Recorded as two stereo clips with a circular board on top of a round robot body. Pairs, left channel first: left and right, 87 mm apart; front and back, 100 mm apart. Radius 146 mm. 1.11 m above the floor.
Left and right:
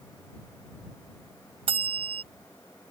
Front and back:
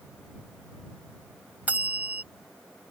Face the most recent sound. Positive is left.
turn(degrees=-105)